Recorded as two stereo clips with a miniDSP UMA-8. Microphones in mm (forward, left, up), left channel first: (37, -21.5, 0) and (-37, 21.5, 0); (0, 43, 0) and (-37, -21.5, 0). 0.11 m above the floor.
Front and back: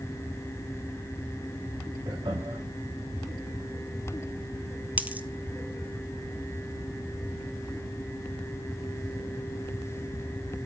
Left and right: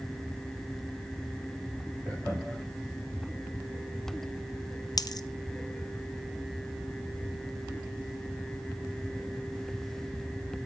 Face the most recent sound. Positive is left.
turn(degrees=80)